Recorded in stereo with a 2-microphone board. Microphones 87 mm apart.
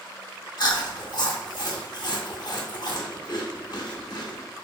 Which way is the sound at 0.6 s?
55° left (ahead or behind).